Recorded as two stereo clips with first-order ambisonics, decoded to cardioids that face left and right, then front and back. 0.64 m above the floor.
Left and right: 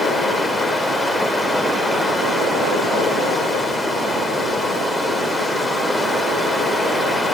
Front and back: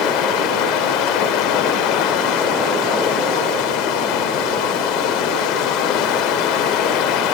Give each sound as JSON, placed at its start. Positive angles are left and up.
{"t": 0.0, "sound": "running water", "azimuth_deg": 10, "distance_m": 2.0}